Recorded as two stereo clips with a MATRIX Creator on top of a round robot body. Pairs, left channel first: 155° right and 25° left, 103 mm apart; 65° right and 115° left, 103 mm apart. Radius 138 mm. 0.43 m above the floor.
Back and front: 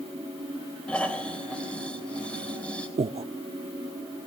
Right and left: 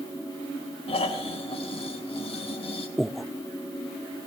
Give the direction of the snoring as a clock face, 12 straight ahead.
3 o'clock.